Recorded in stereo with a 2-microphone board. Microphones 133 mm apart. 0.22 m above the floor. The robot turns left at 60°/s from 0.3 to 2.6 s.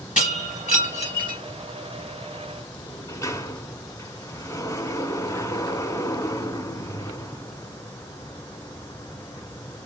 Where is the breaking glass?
95° left, 3.5 m; by 1.4 s 30° left, 3.5 m.